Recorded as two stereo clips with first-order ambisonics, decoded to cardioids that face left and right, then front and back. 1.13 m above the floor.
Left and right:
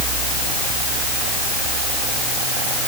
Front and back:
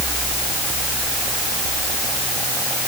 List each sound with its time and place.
Only background noise.